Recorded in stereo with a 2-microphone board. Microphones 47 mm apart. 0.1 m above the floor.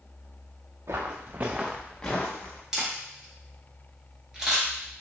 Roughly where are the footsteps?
Right.